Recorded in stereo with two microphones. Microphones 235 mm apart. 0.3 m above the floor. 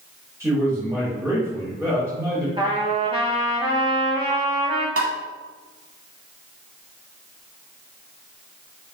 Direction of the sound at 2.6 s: 25° right (ahead or behind).